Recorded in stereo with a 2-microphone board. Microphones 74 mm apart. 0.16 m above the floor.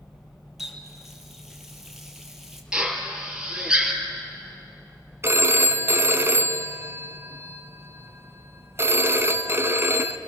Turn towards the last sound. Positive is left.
turn(degrees=-35)  # may be behind; listen again after turning